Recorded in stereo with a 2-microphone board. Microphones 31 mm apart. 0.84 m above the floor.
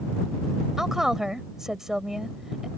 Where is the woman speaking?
15° right (ahead or behind).